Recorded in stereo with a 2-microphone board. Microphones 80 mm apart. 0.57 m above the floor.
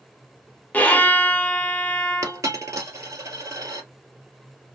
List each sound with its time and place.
0.7 s a violin: 20° left (ahead or behind), 1.0 m
2.2 s a dropped coin: 40° right (ahead or behind), 1.9 m